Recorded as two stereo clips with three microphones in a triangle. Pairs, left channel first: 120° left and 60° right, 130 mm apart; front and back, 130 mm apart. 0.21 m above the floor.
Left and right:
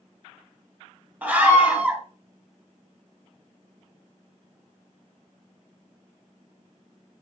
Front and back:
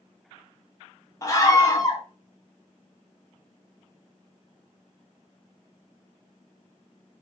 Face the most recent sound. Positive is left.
turn(degrees=0)